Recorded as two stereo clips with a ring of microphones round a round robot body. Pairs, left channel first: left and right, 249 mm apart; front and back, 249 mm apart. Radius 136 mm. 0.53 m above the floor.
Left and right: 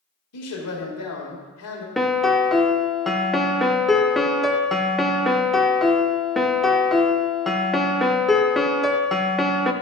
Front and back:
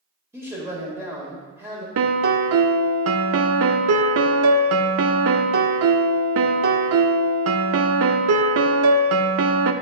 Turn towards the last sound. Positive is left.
turn(degrees=180)